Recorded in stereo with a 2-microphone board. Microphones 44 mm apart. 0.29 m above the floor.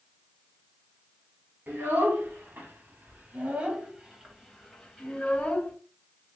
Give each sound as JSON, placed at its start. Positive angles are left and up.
{"t": 1.7, "sound": "a child speaking", "side_deg": -65, "distance_m": 1.8}